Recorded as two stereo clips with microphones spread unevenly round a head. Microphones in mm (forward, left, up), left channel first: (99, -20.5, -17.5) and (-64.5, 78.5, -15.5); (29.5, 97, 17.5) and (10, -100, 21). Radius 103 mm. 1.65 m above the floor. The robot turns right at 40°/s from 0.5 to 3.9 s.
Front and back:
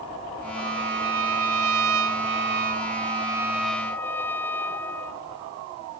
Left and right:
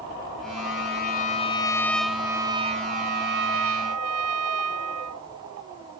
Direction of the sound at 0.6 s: 115° left.